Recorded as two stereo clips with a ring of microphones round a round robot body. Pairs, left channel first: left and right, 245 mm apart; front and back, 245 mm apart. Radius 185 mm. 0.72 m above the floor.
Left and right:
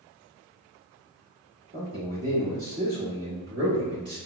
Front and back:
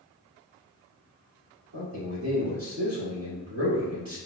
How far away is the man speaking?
About 1.4 m.